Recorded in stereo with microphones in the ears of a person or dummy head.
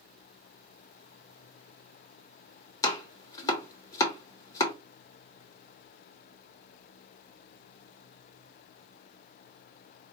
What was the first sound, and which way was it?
Chopping, 20° left (ahead or behind).